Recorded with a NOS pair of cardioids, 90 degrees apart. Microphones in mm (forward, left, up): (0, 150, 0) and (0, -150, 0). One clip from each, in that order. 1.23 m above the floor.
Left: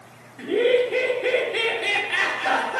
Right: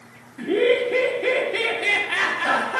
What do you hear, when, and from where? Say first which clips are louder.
0.4 s laughter: even; 35° right, 1.0 m